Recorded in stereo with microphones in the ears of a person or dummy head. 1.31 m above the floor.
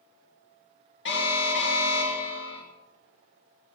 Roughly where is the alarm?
Left.